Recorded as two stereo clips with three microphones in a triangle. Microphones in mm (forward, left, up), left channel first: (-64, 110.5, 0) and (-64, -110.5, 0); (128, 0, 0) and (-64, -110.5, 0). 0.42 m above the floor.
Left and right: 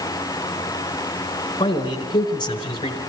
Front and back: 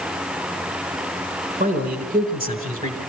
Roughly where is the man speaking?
Behind.